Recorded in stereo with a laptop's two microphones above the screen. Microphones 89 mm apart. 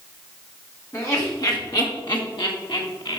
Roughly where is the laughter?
Left.